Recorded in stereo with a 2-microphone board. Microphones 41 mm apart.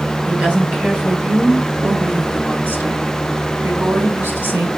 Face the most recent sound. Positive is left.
turn(degrees=-70)  # may be behind; listen again after turning